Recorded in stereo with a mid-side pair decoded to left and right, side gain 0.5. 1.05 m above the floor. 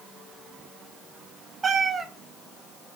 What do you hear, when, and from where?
1.6 s a cat meowing: 30° right, 1.1 m